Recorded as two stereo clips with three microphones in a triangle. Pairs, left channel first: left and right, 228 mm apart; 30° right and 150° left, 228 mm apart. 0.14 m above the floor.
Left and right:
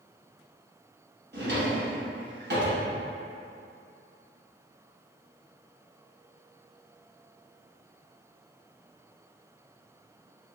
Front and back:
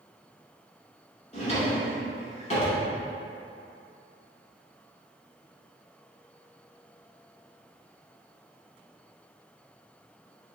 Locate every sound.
1.3 s a drawer: 80° right, 1.0 m